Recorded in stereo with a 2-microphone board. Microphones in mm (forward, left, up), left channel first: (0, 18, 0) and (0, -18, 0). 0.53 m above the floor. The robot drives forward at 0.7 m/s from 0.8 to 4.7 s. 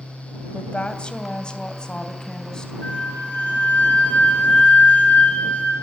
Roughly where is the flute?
Left.